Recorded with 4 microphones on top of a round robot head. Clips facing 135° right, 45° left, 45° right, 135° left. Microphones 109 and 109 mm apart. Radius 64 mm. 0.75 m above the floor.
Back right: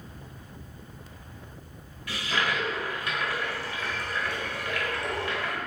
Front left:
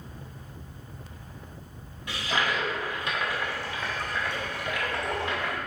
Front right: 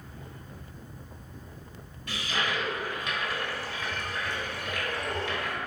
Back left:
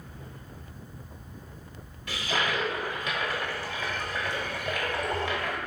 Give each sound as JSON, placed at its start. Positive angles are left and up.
{"t": 2.1, "sound": "a toilet flushing", "azimuth_deg": 115, "distance_m": 1.1}